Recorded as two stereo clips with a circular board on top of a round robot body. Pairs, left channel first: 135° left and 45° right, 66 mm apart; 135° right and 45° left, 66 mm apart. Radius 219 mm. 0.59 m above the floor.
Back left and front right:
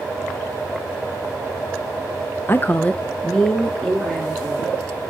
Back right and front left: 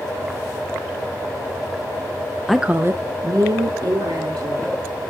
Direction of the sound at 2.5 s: 140° left.